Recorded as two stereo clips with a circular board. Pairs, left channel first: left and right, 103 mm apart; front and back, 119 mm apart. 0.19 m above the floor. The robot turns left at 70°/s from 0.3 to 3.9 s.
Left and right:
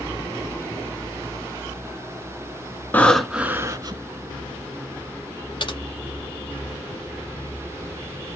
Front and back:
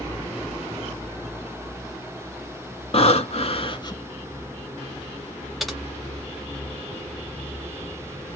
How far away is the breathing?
About 0.9 m.